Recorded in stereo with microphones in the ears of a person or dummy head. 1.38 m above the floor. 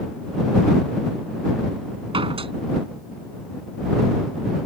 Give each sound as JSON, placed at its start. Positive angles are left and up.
{"t": 2.1, "sound": "a door slam", "side_deg": -35}